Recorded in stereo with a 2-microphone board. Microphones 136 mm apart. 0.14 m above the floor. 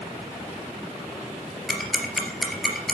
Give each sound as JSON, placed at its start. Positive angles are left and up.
{"t": 1.7, "sound": "ticking", "side_deg": 0, "distance_m": 2.5}